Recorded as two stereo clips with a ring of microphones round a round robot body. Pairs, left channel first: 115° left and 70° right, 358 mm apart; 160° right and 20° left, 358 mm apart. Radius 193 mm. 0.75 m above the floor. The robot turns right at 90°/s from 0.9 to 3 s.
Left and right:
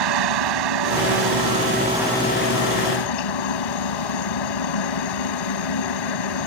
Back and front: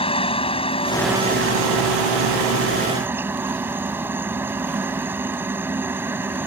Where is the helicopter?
80° right; by 6.5 s 105° left.